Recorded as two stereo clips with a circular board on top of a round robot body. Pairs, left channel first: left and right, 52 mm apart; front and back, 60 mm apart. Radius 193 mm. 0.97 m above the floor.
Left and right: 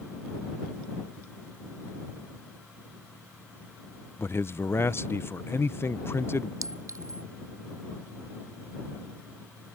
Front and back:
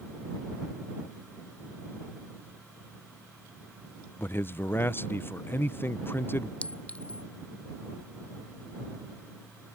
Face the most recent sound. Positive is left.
turn(degrees=-70)